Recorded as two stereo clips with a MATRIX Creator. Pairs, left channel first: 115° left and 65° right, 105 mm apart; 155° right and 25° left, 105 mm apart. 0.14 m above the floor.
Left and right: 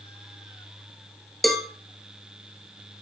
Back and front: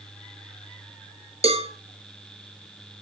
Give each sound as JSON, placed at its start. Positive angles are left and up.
{"t": 1.4, "sound": "a cowbell", "azimuth_deg": 25, "distance_m": 1.3}